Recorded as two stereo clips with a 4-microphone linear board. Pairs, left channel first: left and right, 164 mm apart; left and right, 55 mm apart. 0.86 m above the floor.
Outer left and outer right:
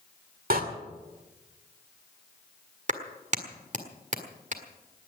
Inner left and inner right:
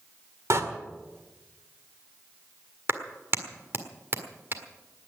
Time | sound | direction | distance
0.5 | a door slam | 65° right (ahead or behind) | 1.9 m
2.9 | a clap | 45° right (ahead or behind) | 1.6 m